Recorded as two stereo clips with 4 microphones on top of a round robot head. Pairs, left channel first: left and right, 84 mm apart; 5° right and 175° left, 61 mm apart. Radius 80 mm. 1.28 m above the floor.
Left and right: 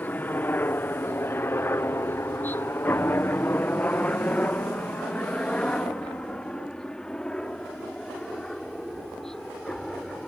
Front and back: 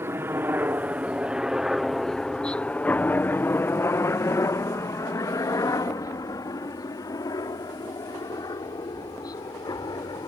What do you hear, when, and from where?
0.0 s a helicopter: 150° left; by 10.3 s 5° left